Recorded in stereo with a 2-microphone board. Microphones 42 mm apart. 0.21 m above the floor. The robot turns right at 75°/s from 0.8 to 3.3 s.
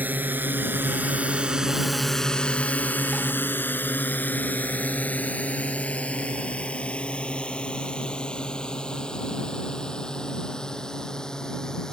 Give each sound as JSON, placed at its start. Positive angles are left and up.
{"t": 0.0, "sound": "a drone", "side_deg": -45}